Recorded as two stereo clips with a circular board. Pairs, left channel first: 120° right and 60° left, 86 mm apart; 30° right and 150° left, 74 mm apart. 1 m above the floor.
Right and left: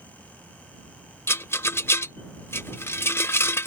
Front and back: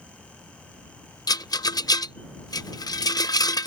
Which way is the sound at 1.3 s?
60° right.